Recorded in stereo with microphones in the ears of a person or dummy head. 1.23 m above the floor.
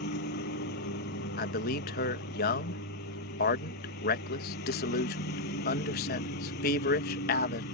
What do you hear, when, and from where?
0.0 s a lawn mower: 50° left (ahead or behind)
1.4 s a man speaking: 55° left (ahead or behind)